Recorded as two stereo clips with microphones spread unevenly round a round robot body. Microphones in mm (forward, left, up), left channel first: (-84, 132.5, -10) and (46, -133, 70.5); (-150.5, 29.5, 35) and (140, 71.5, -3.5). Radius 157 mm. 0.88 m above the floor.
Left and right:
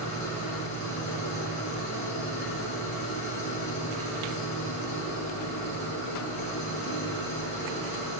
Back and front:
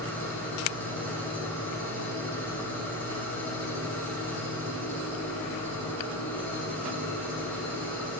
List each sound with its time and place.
0.0 s an engine running: 105° left, 7.5 m